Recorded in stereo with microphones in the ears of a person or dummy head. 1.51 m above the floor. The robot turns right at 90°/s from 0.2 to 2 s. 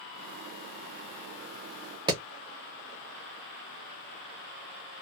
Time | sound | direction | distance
2.1 | hammering | 20° right (ahead or behind) | 0.8 m